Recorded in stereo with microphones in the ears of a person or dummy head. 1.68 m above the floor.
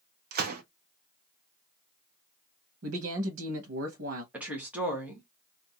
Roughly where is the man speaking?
Right.